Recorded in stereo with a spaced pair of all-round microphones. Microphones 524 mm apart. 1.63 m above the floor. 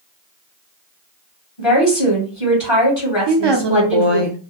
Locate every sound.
1.6 s a woman speaking: 65° left (ahead or behind), 1.3 m
3.3 s a woman speaking: 60° right (ahead or behind), 0.6 m